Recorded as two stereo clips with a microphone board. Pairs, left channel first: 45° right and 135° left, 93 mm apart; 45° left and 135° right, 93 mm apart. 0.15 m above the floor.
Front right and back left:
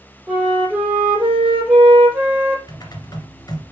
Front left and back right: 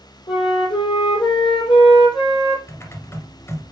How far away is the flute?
About 3.5 m.